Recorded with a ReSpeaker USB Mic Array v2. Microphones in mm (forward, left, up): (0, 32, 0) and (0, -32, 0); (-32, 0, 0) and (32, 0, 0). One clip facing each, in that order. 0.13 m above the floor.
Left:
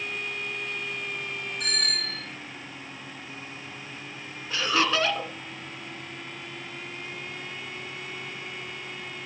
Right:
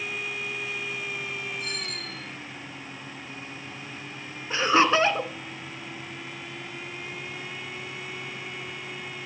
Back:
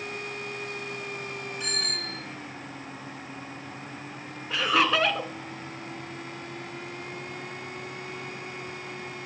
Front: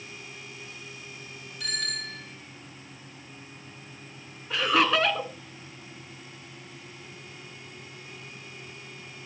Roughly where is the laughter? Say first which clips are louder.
Right 5 dB, even; right.